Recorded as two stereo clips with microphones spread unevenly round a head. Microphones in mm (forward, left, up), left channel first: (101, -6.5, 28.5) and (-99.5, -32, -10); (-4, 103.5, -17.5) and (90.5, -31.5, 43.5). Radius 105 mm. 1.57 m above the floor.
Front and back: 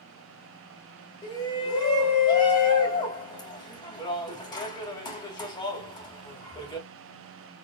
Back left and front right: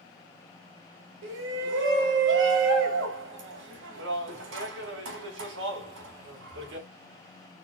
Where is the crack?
I don't hear a crack.